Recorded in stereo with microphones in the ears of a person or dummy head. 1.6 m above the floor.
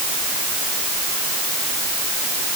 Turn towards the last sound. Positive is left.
No sound to turn to.